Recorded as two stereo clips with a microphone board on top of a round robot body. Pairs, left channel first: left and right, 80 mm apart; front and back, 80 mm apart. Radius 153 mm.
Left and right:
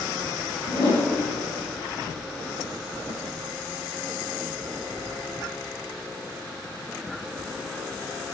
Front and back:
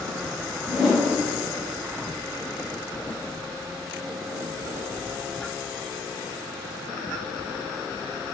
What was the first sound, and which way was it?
A whoosh, 90° left.